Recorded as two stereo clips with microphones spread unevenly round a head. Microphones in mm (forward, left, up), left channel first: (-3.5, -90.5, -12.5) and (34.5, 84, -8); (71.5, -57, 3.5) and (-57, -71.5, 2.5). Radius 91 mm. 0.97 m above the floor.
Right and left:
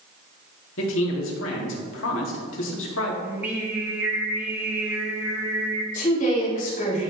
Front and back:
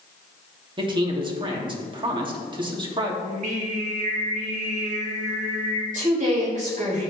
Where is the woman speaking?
150° right, 4 m.